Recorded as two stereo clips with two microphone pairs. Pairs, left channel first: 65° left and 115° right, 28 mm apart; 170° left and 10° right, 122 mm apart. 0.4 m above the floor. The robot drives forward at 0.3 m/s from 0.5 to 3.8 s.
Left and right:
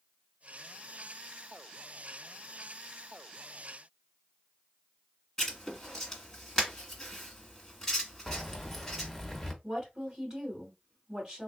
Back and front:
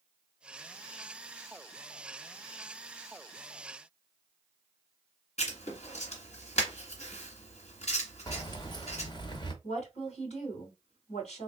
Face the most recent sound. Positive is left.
turn(degrees=180)